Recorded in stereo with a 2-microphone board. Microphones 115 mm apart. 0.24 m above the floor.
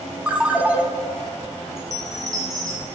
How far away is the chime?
About 3 m.